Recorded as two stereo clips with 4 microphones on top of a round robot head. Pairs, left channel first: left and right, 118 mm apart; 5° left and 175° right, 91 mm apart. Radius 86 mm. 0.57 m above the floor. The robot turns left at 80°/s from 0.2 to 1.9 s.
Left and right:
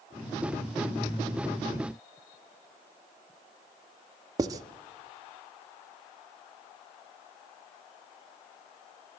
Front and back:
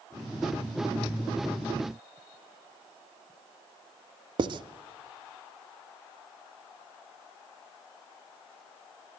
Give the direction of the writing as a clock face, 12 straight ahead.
5 o'clock.